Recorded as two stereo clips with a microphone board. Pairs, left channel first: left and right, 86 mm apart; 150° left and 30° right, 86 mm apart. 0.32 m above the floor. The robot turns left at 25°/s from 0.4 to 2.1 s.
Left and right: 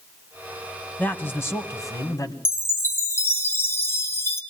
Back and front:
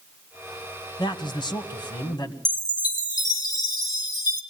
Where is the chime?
145° left, 2 m.